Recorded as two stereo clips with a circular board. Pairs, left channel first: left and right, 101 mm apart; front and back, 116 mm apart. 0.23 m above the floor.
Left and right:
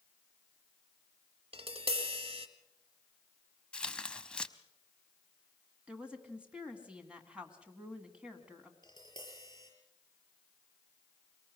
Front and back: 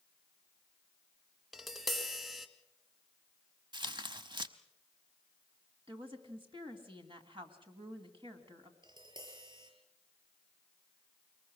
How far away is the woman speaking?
About 2 m.